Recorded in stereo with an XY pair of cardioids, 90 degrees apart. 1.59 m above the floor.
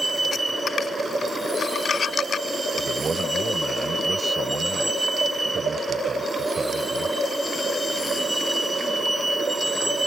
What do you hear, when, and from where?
0.0 s a vehicle: 15° right
2.8 s a man speaking: 40° right